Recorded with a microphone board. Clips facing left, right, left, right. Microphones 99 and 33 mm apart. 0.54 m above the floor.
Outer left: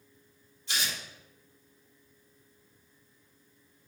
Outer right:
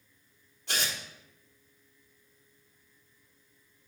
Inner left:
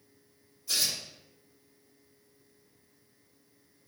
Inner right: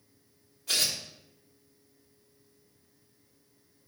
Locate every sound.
0.7 s tearing paper: 70° right (ahead or behind), 3 m